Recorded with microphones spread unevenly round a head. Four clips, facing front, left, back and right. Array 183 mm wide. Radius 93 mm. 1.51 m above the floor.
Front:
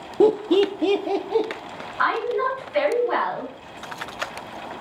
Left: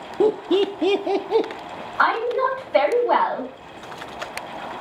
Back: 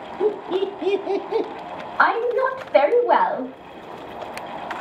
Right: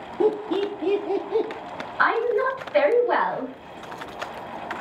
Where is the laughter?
35° left, 0.6 m; by 1.5 s 105° left, 0.9 m.